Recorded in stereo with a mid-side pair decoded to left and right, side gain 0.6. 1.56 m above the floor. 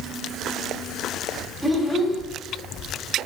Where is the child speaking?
5° right, 2.5 m.